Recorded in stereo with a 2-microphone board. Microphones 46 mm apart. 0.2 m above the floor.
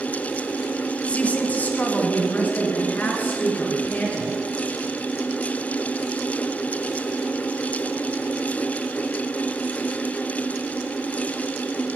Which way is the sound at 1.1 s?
25° left (ahead or behind).